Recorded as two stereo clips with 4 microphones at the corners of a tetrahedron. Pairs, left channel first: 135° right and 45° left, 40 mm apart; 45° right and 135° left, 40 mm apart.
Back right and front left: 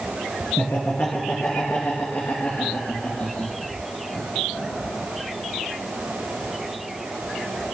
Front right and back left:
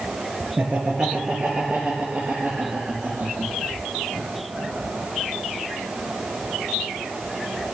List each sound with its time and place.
0.6 s laughter: 145° right, 2.5 m; by 5.0 s 165° right, 7.5 m